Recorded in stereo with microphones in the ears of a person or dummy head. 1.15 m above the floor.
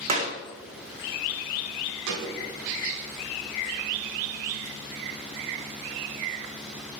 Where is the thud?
75° right (ahead or behind), 3.5 m.